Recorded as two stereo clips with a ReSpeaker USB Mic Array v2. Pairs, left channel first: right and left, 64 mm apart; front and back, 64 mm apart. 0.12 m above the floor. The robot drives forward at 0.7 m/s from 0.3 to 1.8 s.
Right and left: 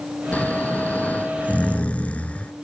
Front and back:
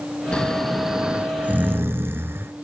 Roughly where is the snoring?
Ahead right.